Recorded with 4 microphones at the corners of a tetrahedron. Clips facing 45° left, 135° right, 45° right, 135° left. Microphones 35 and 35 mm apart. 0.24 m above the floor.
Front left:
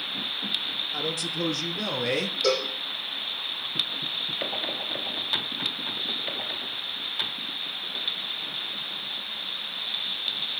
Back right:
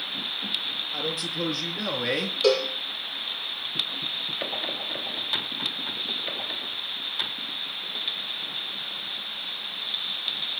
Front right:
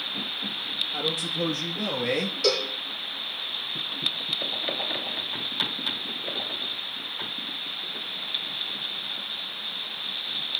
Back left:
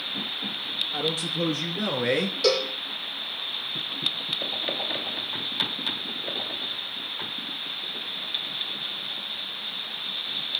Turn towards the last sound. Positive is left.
turn(degrees=-170)